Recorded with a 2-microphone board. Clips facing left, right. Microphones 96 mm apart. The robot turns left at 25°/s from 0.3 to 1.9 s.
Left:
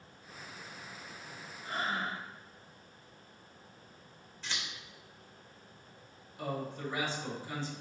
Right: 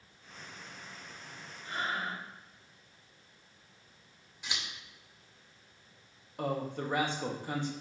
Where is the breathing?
45° left (ahead or behind), 4 m; by 2.2 s 40° left (ahead or behind), 4 m.